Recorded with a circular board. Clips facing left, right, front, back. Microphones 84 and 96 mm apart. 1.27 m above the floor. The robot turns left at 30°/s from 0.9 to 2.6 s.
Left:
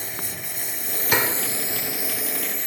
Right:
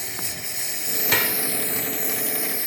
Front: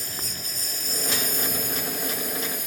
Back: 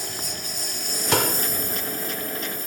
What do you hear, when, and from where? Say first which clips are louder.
0.0 s a lawn mower: even, back 4 dB; 40° left; by 2.7 s 10° right
1.1 s a door slam: left 2 dB, back 10 dB; 165° left; by 1.4 s 155° left